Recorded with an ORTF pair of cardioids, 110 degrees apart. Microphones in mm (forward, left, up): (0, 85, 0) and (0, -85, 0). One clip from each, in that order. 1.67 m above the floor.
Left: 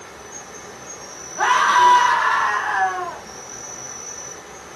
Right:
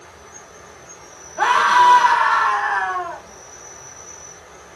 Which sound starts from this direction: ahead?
A scream, at 1.4 s.